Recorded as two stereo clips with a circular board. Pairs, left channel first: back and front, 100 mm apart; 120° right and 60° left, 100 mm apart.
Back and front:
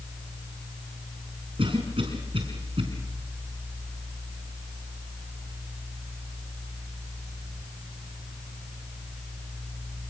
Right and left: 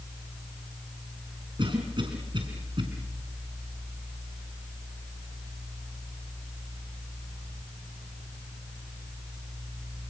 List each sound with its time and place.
1.6 s a cough: 25° left, 4.5 m